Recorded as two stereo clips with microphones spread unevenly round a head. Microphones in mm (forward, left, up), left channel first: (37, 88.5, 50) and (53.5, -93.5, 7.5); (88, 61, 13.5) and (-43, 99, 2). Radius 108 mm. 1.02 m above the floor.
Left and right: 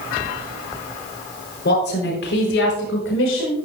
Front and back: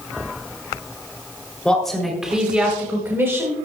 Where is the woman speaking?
70° left, 3.5 m; by 3.5 s 95° left, 5 m.